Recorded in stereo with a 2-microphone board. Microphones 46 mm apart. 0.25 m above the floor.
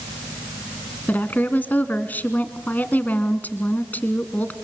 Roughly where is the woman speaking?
Left.